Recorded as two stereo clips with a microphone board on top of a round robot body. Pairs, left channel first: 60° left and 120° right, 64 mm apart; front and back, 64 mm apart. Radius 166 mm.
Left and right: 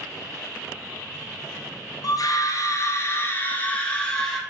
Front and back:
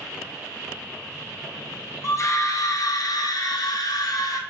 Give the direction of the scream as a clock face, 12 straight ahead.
11 o'clock.